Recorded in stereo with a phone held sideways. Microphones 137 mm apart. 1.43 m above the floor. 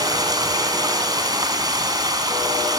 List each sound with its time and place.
0.0 s running water: 30° right (ahead or behind), 1.9 m